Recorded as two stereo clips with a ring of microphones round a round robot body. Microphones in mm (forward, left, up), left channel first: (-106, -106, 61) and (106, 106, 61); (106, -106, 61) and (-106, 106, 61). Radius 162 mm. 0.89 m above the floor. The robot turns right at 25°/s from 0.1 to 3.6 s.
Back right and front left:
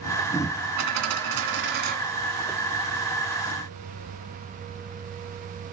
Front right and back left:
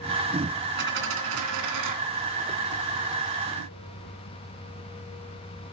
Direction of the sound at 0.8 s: 80° left.